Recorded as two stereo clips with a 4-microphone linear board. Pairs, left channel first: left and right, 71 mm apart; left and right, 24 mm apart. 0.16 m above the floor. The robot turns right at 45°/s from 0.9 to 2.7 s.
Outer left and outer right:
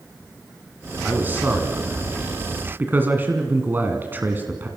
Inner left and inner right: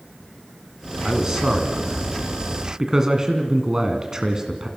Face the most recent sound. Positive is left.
turn(degrees=-60)